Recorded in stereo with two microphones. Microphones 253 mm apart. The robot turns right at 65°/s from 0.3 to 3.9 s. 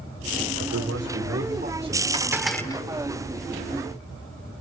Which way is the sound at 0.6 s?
105° right.